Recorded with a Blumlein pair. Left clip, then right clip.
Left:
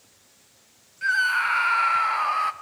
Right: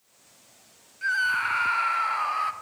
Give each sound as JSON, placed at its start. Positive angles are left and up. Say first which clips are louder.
{"t": 1.0, "sound": "a scream", "louder": "left 3 dB", "azimuth_deg": 15, "distance_m": 0.7}